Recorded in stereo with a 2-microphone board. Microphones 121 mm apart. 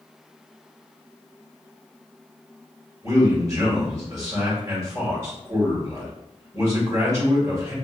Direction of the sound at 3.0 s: 30° right (ahead or behind).